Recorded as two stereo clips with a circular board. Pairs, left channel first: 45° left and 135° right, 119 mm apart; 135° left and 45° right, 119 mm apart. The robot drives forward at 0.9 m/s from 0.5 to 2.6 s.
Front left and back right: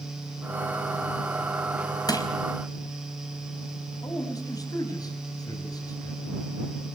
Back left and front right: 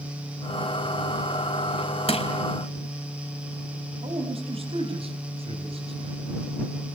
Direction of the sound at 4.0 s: 10° right.